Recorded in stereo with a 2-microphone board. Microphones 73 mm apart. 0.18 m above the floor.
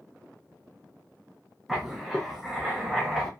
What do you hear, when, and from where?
1.7 s writing: centre (ahead or behind), 0.9 m